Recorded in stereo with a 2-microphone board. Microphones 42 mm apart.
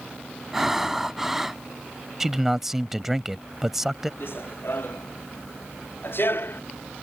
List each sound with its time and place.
0.5 s breathing: 5° right (ahead or behind)
2.2 s a man speaking: 10° right (ahead or behind)
4.2 s running footsteps: 65° left (ahead or behind); by 6.6 s 60° left (ahead or behind)